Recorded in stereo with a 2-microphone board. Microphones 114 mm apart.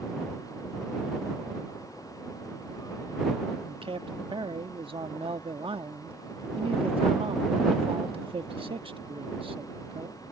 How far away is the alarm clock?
No alarm clock in this recording.